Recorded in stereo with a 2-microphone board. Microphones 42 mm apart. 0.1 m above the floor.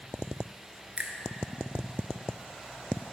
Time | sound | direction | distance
1.0 | a finger snap | 25° right (ahead or behind) | 1.0 m